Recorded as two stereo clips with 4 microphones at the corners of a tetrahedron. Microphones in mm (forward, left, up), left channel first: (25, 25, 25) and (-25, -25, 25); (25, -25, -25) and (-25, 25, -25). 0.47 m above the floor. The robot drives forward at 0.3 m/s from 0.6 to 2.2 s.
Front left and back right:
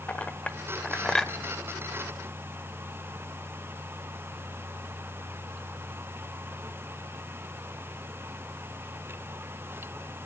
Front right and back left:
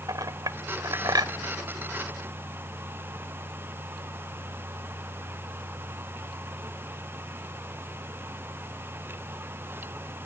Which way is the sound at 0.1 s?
115° left.